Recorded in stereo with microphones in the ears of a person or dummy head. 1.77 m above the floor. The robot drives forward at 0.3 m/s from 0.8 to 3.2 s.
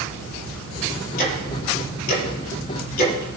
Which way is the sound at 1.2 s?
50° left (ahead or behind).